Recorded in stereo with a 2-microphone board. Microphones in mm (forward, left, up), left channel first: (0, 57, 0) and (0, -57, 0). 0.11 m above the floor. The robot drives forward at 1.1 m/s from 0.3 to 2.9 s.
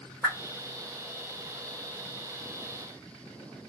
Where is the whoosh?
5° left (ahead or behind), 3 m.